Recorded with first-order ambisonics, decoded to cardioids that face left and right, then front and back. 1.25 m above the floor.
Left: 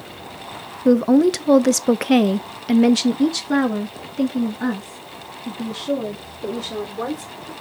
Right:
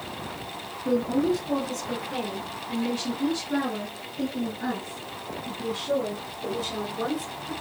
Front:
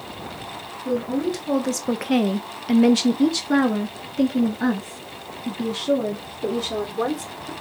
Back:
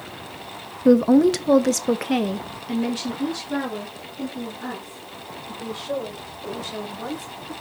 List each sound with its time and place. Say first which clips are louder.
0.8 s a woman speaking: left 9 dB, back 9 dB; 135° left, 1.0 m; by 7.5 s 20° left, 3.5 m